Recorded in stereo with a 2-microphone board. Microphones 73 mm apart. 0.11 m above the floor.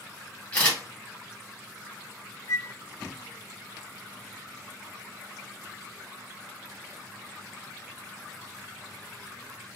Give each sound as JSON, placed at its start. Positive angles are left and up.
{"t": 0.5, "sound": "a camera shutter", "side_deg": 20, "distance_m": 2.0}
{"t": 2.5, "sound": "a flute", "side_deg": 55, "distance_m": 0.5}